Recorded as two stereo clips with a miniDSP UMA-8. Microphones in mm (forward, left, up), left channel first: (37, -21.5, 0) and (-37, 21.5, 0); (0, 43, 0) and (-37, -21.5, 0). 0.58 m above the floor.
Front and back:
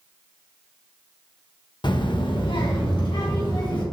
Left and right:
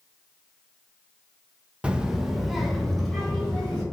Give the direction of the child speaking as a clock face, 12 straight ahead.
2 o'clock.